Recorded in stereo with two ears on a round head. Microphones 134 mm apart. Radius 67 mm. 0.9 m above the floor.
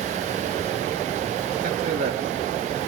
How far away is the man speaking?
About 1.6 m.